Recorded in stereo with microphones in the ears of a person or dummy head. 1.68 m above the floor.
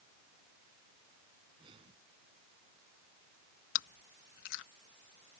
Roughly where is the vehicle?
No vehicle in this recording.